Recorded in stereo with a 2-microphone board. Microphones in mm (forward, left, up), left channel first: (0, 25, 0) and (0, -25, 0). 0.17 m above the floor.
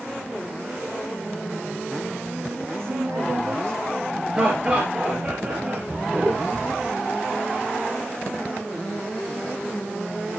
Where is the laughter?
25° right (ahead or behind), 3.5 m.